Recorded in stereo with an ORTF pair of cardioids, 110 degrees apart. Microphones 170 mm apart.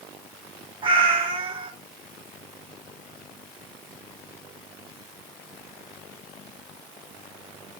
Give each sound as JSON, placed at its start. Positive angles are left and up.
{"t": 0.8, "sound": "a cat meowing", "azimuth_deg": -30, "distance_m": 1.3}